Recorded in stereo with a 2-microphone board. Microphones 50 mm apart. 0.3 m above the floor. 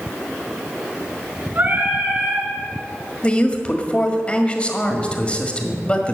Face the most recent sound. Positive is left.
turn(degrees=20)  # may be behind; listen again after turning